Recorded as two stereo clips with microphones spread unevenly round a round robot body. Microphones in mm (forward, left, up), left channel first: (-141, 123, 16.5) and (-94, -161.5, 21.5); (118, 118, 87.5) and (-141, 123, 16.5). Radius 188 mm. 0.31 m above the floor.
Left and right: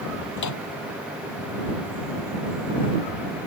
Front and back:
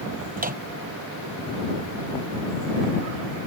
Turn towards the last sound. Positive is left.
turn(degrees=120)